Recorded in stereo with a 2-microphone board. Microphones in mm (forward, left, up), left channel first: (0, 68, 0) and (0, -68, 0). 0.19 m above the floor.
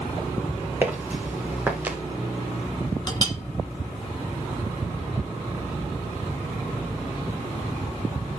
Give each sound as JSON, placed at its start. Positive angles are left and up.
{"t": 0.8, "sound": "footsteps", "side_deg": -15, "distance_m": 3.0}
{"t": 3.1, "sound": "a clink", "side_deg": 30, "distance_m": 1.2}